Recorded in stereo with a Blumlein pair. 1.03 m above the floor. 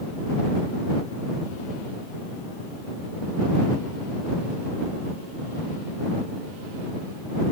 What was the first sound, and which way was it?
Only background noise.